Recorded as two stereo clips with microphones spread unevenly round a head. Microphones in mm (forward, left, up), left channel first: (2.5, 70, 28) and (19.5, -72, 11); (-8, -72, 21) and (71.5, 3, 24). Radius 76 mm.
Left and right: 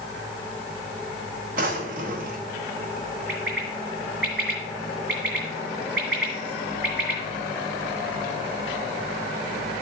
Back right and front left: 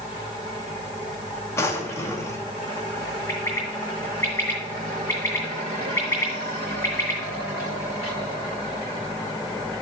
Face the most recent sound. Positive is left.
turn(degrees=-75)